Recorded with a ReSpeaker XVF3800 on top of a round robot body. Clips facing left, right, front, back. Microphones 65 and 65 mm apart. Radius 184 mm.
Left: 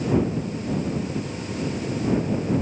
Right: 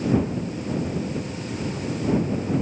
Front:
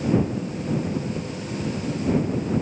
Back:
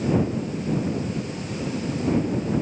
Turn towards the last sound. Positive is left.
No sound to turn to.